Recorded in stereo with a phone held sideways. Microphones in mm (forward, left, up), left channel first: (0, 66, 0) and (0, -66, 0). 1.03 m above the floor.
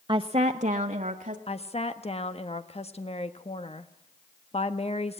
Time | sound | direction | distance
0.1 | a woman speaking | 40° right (ahead or behind) | 0.7 m
1.5 | a woman speaking | 50° left (ahead or behind) | 1.4 m